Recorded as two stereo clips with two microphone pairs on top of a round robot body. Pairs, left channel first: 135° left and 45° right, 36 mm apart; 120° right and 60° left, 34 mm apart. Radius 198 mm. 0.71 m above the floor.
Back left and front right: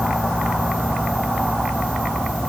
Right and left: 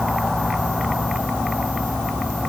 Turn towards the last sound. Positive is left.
No sound to turn to.